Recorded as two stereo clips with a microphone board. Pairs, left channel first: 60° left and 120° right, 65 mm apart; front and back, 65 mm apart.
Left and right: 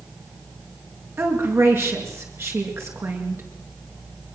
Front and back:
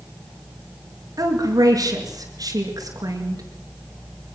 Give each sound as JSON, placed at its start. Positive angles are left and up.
{"t": 1.2, "sound": "a woman speaking", "azimuth_deg": -165, "distance_m": 5.0}